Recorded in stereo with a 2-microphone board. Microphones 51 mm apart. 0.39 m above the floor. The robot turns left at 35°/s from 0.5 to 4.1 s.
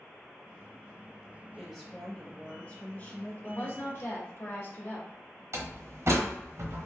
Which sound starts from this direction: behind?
A woman speaking, at 1.6 s.